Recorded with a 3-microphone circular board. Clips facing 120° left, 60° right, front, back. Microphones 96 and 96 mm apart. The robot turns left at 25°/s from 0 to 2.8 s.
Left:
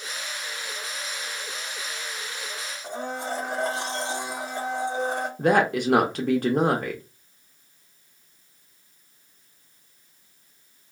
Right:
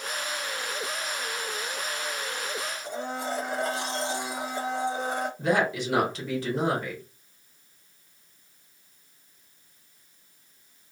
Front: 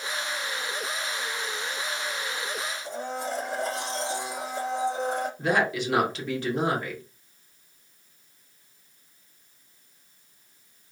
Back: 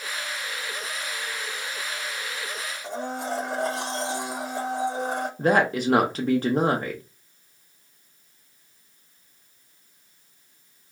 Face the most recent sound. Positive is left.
turn(degrees=140)